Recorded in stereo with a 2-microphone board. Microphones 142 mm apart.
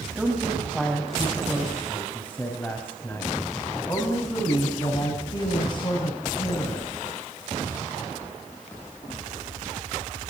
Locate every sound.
0.1 s a woman speaking: 5° right (ahead or behind), 4.5 m; by 6.9 s 40° left (ahead or behind), 5.5 m